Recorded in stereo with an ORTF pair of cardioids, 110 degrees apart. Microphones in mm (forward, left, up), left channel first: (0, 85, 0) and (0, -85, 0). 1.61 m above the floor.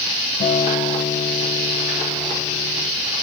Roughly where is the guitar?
Ahead left.